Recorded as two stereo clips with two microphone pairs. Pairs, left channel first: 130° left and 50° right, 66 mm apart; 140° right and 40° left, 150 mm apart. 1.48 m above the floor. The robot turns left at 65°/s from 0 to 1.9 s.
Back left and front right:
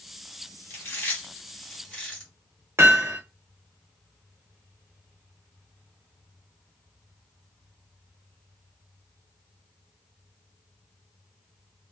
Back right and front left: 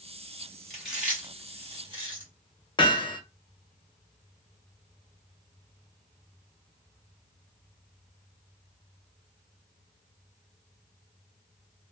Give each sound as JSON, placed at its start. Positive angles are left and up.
{"t": 0.7, "sound": "chewing", "azimuth_deg": 140, "distance_m": 1.4}
{"t": 2.8, "sound": "hammering", "azimuth_deg": -90, "distance_m": 1.0}